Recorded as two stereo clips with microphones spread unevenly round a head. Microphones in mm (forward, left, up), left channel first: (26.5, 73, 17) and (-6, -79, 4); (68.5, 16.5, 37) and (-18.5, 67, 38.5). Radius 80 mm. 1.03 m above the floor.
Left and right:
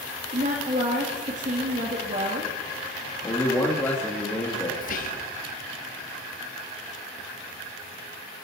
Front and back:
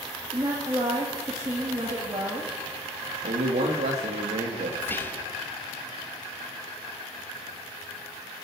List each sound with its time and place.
0.3 s a woman speaking: 145° right, 2 m
3.2 s a man speaking: 155° left, 1.8 m
4.8 s whispering: 40° left, 1.8 m